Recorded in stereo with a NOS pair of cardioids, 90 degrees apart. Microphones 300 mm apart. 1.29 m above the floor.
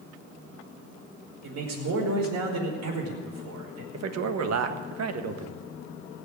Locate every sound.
1.4 s a man speaking: 60° right, 5 m
3.9 s a man speaking: 60° right, 1.5 m